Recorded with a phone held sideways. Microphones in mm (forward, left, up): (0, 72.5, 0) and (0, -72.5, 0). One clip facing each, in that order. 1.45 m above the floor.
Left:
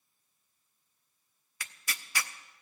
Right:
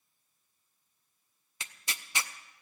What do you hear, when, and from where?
1.6 s tearing paper: 20° right (ahead or behind), 0.6 m